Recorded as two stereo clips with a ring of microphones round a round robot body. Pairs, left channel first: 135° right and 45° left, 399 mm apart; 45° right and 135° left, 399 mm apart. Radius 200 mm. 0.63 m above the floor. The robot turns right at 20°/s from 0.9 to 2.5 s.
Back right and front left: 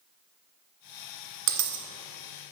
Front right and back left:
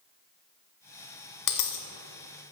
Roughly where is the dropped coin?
Ahead.